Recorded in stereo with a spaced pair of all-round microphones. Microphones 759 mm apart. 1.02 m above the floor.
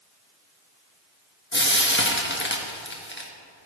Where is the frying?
15° left (ahead or behind), 1.1 m.